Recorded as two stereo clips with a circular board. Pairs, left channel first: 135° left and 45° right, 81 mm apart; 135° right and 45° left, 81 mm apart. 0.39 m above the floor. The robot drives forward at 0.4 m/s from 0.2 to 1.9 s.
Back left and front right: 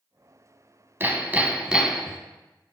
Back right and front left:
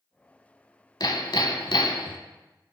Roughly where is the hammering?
Right.